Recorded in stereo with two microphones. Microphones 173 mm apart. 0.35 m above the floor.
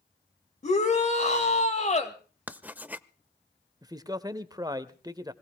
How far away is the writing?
About 0.5 m.